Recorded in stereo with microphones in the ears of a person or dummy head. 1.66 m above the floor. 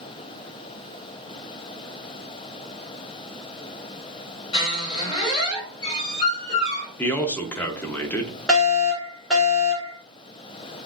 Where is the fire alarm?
Centre (ahead or behind), 1.4 m.